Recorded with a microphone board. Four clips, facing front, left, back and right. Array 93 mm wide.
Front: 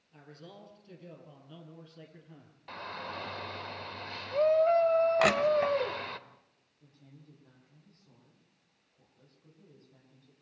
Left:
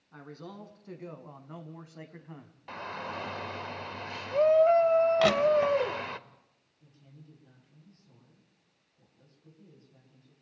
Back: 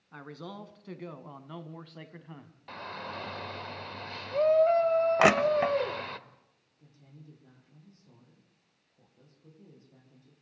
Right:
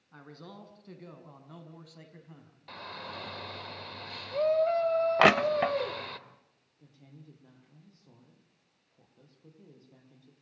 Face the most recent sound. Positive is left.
turn(degrees=-105)